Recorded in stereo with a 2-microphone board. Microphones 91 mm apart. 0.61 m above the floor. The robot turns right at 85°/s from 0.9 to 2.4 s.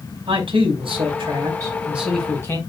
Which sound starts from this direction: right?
A man speaking, at 0.3 s.